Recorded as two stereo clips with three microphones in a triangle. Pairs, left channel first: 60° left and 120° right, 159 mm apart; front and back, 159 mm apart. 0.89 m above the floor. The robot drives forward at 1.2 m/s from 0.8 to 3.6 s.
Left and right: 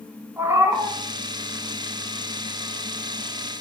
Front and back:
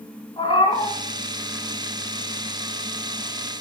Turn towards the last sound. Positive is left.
turn(degrees=-155)